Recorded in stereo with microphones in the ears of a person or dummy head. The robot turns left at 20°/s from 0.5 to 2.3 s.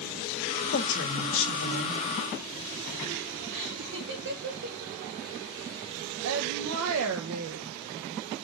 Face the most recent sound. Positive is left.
turn(degrees=-70)  # may be behind; listen again after turning